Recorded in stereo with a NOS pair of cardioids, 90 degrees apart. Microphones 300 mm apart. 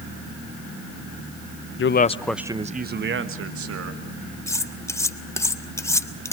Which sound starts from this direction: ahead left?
A man speaking, at 1.8 s.